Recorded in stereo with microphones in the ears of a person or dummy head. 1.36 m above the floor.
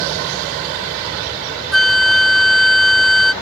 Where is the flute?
Centre (ahead or behind).